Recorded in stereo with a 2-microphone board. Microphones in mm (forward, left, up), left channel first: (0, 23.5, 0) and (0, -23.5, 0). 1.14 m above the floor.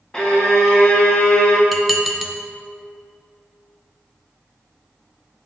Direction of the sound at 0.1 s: 15° left (ahead or behind).